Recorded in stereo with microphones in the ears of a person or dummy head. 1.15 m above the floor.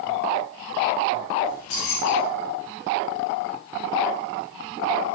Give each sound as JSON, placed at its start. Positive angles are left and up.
{"t": 1.4, "sound": "keys jangling", "side_deg": 75, "distance_m": 1.7}